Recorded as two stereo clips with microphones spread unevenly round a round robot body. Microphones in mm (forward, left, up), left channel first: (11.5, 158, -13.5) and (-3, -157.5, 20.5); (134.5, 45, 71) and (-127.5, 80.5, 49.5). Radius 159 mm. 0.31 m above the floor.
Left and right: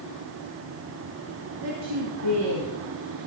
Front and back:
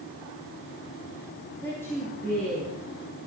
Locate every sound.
1.6 s a woman speaking: 90° right, 4.5 m; by 2.8 s 95° right, 5.5 m